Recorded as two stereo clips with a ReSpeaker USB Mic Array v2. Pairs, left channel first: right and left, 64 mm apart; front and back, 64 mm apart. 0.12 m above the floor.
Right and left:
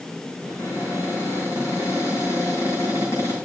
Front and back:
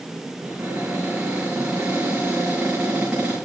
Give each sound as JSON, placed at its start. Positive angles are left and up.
{"t": 0.4, "sound": "a cupboard door", "azimuth_deg": -110, "distance_m": 6.0}